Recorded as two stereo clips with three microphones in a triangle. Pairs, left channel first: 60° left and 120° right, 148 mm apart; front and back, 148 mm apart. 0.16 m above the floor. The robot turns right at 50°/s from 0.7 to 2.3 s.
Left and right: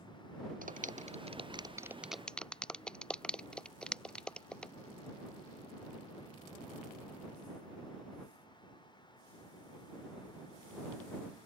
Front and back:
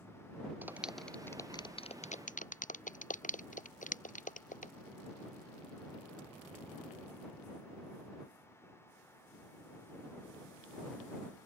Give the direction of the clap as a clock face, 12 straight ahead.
3 o'clock.